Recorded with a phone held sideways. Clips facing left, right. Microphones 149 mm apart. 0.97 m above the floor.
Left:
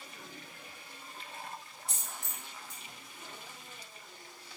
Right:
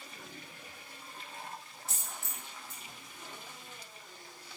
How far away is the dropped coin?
About 0.8 m.